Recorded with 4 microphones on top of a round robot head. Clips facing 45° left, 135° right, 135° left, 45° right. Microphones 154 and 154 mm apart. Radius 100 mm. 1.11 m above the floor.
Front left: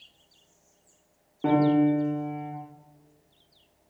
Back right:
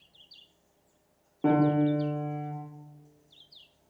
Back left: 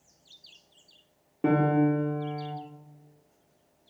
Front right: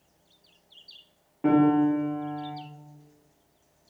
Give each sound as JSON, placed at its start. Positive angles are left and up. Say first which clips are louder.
{"t": 1.4, "sound": "a piano", "louder": "front left 3 dB, front right 3 dB", "azimuth_deg": 135, "distance_m": 0.6}